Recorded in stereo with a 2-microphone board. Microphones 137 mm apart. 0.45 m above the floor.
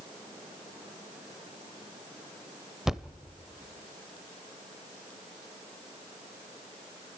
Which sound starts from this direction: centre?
A thud, at 2.9 s.